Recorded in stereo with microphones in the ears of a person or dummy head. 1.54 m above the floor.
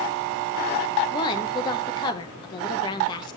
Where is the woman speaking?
25° left (ahead or behind), 1.9 m.